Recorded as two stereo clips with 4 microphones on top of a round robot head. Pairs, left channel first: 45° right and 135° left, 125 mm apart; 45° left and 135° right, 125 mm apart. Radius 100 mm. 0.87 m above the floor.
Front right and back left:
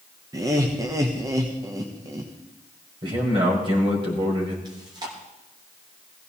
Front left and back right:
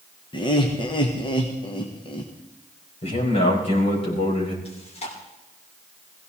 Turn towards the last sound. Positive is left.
turn(degrees=80)